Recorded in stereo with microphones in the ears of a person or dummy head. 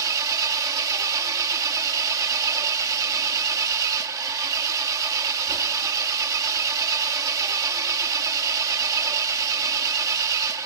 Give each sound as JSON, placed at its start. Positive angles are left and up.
{"t": 0.0, "sound": "an engine running", "side_deg": -20}